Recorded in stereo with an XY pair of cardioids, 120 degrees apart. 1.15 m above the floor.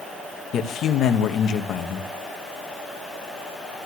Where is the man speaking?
60° left, 1.3 m.